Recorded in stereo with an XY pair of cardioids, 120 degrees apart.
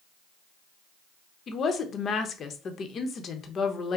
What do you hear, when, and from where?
1.5 s a woman speaking: 45° left, 1.0 m